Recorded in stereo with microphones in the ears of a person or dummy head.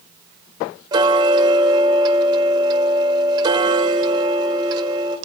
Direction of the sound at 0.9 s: 25° right (ahead or behind).